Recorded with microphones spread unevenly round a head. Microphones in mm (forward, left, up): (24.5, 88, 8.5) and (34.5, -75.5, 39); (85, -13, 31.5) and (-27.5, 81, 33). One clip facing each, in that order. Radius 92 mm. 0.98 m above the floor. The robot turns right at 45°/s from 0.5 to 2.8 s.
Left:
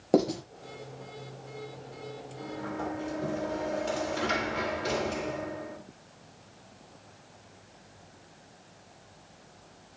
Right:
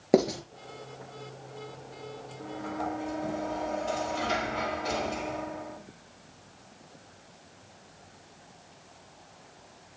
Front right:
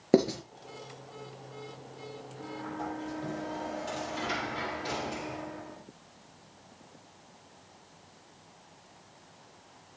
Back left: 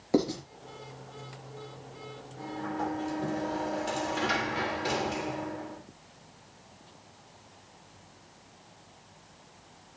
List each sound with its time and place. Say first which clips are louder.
0.1 s writing: right 1 dB, front right 3 dB; 15° right, 4 m
2.4 s a sliding door: right 1 dB, back left 5 dB; 95° left, 3.5 m; by 5.8 s 115° left, 3.5 m